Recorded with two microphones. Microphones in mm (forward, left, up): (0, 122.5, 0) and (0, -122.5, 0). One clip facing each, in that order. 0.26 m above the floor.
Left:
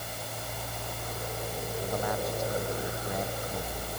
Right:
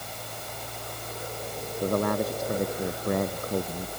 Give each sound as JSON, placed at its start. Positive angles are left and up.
{"t": 1.8, "sound": "a man speaking", "side_deg": -65}